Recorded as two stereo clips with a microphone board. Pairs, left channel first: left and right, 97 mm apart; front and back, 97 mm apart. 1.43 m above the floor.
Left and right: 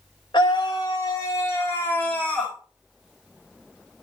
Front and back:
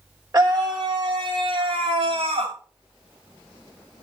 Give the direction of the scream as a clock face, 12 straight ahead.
8 o'clock.